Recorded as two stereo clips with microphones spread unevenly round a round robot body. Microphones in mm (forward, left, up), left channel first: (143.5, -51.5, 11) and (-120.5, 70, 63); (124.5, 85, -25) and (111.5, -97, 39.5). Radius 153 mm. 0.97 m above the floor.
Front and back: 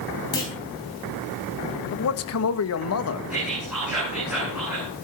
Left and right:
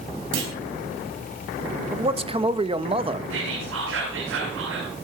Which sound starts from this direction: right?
A clunk, at 0.3 s.